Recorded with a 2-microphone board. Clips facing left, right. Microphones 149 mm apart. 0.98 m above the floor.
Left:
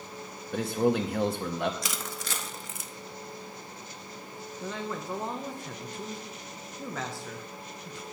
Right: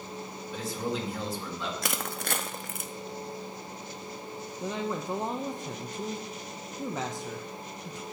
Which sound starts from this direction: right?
Crushing, at 1.8 s.